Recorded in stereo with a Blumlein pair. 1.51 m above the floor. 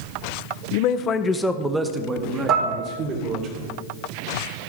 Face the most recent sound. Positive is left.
turn(degrees=-35)